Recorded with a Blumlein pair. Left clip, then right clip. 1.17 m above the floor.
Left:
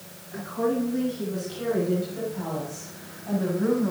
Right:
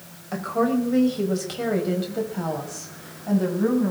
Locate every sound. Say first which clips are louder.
0.3 s a woman speaking: right 3 dB; 50° right, 4.5 m; by 3.9 s 15° right, 6.5 m